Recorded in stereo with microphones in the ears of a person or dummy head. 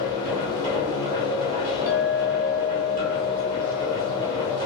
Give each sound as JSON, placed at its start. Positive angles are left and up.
{"t": 0.0, "sound": "a machine running", "side_deg": -20, "distance_m": 1.7}
{"t": 1.9, "sound": "a clink", "side_deg": -15, "distance_m": 1.2}